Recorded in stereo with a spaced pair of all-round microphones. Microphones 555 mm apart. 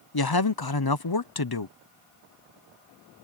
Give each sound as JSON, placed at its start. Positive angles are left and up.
{"t": 0.1, "sound": "a man speaking", "side_deg": 40}